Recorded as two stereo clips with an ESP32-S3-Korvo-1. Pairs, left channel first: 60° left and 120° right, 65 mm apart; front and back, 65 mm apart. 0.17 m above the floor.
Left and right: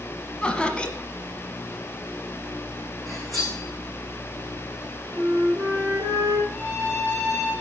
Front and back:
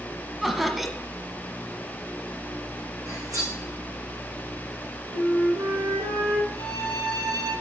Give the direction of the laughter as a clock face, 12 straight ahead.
9 o'clock.